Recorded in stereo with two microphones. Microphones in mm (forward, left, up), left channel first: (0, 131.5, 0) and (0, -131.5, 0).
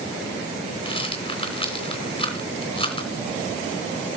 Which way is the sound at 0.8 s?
20° left (ahead or behind).